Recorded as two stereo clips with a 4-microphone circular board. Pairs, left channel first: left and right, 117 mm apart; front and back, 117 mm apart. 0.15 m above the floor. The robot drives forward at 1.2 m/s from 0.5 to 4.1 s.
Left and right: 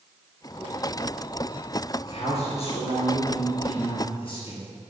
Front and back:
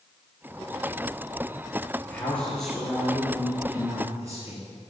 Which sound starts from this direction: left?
A man speaking, at 2.1 s.